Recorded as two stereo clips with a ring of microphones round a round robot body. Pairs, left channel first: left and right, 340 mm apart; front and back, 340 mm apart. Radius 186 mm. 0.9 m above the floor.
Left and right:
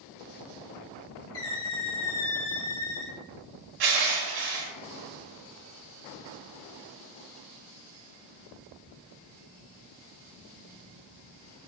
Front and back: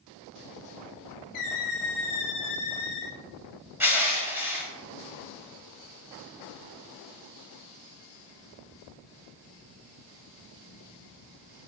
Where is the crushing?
95° right, 1.2 m.